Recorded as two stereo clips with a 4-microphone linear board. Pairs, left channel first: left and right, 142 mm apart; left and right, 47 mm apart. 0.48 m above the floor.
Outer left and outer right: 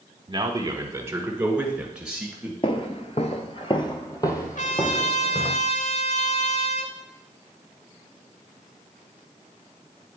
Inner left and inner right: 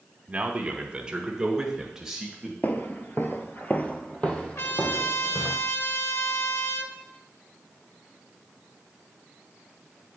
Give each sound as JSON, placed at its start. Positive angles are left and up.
{"t": 0.3, "sound": "a man speaking", "side_deg": -35, "distance_m": 0.9}
{"t": 2.6, "sound": "footsteps", "side_deg": 40, "distance_m": 0.7}
{"t": 4.5, "sound": "a trumpet", "side_deg": 65, "distance_m": 0.8}